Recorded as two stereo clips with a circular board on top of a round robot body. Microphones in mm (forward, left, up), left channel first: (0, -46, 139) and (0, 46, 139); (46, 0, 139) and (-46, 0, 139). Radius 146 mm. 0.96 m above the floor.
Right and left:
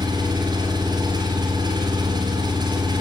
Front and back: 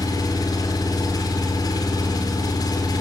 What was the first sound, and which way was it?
An engine running, 50° left.